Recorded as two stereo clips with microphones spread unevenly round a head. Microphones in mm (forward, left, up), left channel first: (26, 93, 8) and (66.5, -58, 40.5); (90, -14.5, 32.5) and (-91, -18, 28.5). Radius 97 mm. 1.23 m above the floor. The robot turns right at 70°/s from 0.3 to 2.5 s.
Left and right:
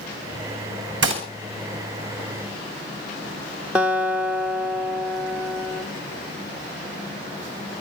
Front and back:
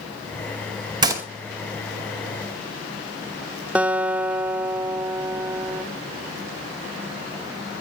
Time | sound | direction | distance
1.0 | a gunshot | 110° right | 2.5 m
3.8 | a guitar | 100° right | 0.8 m